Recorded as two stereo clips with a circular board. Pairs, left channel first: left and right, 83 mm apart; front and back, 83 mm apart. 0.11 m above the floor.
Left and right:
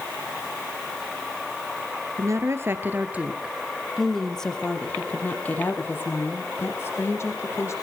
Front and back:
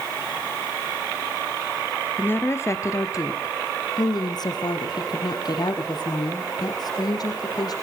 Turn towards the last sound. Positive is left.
turn(degrees=35)